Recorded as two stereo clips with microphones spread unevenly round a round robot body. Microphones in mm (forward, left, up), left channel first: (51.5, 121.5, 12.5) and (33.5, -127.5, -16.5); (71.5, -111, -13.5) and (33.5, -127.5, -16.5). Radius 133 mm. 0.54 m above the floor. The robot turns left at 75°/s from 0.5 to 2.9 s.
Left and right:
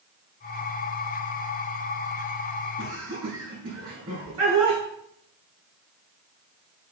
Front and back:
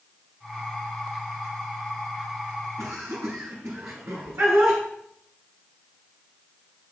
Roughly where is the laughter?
Behind.